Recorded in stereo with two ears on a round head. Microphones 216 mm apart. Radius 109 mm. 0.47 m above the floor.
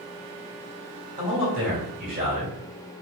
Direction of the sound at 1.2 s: 35° right (ahead or behind).